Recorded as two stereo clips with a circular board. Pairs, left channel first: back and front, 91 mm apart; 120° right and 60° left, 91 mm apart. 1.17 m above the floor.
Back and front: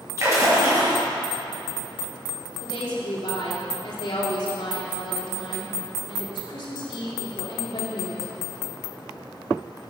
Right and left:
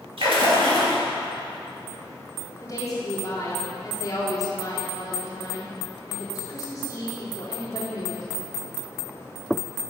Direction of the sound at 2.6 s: 175° right.